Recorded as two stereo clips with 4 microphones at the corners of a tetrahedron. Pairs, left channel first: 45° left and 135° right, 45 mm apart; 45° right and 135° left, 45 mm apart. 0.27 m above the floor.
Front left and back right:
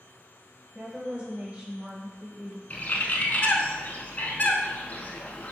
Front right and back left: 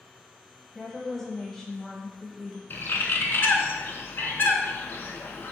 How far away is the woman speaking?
About 1.0 m.